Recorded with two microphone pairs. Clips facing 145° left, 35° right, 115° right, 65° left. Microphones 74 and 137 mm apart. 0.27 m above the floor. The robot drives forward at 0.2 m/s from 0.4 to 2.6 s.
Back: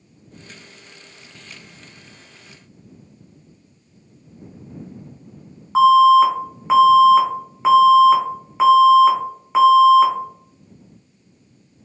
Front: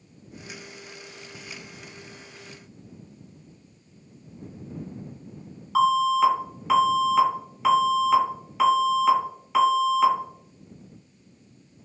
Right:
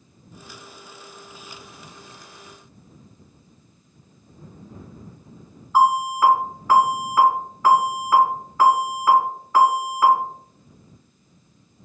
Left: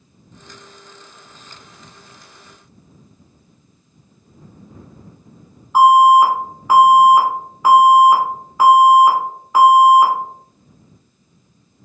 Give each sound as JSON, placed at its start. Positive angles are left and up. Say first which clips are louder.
{"t": 5.8, "sound": "an alarm", "louder": "back 10 dB, left 9 dB", "azimuth_deg": 130, "distance_m": 0.8}